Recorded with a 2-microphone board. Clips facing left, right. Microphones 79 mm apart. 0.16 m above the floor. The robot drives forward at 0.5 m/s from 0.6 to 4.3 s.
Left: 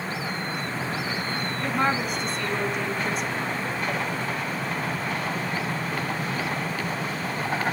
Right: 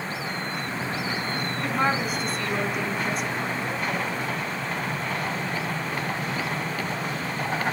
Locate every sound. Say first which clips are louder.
1.6 s a woman speaking: even; centre (ahead or behind), 1.1 m